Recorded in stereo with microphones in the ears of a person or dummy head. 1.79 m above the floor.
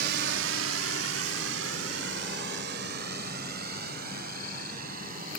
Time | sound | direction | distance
0.0 | a drone | 70° right (ahead or behind) | ?